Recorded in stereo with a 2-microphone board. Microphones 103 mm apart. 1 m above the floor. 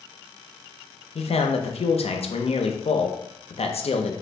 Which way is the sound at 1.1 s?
75° left (ahead or behind).